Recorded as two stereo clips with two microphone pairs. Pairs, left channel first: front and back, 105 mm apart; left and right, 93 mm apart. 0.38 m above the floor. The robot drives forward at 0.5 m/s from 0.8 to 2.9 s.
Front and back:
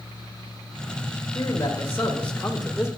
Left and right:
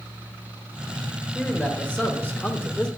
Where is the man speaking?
25° left, 1.0 m; by 2.9 s 115° left, 0.8 m.